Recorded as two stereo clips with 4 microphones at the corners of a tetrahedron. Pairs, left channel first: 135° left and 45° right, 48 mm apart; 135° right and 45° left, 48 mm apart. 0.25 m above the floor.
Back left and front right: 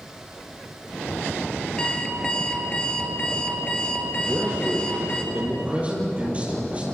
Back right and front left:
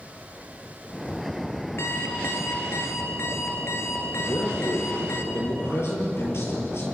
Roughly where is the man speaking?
Right.